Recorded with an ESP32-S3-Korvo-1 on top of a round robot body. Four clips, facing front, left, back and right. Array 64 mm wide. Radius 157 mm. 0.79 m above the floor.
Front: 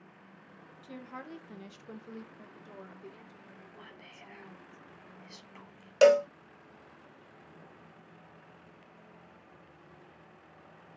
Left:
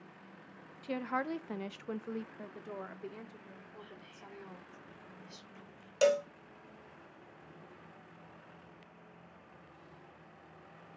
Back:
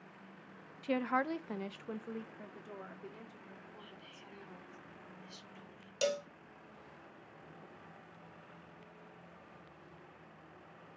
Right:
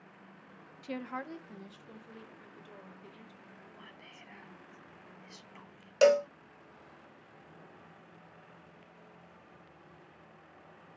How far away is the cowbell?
About 0.6 m.